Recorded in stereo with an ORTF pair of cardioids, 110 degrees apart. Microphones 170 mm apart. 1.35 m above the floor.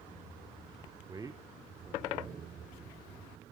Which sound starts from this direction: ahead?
A man speaking, at 1.1 s.